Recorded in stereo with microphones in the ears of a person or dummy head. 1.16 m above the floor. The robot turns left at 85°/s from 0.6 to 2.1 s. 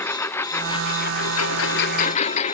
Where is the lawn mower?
15° left (ahead or behind); by 2.5 s 35° left (ahead or behind).